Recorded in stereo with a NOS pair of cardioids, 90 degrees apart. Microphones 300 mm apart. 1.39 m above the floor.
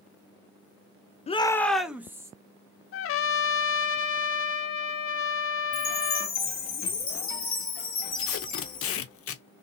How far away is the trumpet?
About 0.6 m.